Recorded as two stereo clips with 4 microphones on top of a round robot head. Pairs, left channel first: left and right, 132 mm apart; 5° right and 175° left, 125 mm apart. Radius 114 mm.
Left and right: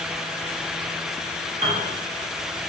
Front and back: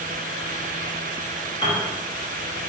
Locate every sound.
1.6 s a piano: 60° right, 1.0 m